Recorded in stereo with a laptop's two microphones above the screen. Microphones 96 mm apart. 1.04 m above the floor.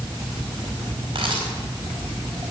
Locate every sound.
1.1 s a camera shutter: 60° right (ahead or behind), 3.5 m